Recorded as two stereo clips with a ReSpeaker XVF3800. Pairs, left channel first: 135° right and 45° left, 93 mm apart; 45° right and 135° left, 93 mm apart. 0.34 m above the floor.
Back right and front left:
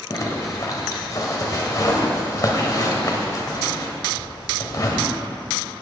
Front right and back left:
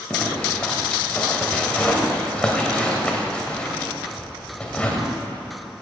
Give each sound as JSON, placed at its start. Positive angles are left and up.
{"t": 0.1, "sound": "a zipper", "azimuth_deg": -115, "distance_m": 1.8}